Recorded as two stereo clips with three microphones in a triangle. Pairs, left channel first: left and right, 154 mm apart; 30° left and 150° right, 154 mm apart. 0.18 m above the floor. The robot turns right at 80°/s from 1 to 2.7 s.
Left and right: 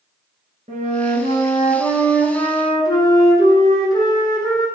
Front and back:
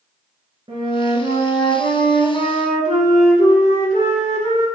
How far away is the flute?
About 1.2 m.